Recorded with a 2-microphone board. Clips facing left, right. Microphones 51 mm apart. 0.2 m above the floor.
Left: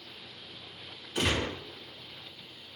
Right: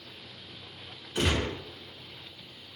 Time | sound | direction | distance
1.1 | a gunshot | 5° right (ahead or behind) | 2.5 m